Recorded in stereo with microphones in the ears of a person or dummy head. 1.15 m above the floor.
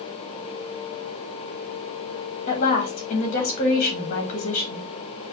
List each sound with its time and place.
2.5 s a woman speaking: 45° left (ahead or behind), 1.8 m